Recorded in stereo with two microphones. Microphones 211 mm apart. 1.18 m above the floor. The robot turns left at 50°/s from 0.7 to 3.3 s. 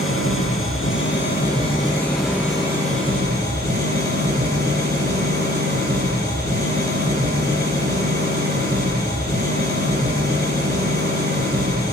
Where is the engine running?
75° left, 8 m; by 11.9 s 55° right, 8 m.